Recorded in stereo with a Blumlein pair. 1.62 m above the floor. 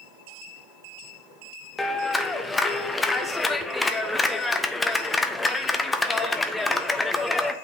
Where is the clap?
10° left, 0.6 m.